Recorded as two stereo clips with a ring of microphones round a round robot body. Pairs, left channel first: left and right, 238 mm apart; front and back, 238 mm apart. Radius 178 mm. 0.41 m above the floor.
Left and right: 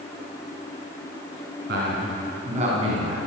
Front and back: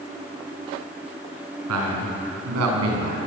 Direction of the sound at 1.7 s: 150° right.